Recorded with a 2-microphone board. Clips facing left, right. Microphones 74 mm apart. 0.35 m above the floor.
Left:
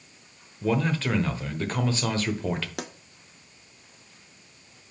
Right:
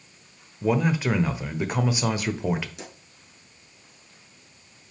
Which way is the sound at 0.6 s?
15° right (ahead or behind).